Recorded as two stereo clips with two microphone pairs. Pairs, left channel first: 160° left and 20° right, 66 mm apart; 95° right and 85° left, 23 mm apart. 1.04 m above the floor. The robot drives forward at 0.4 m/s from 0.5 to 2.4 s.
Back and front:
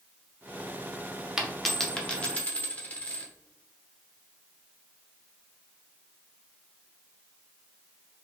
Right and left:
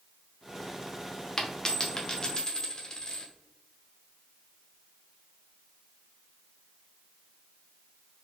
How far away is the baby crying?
No baby crying in this recording.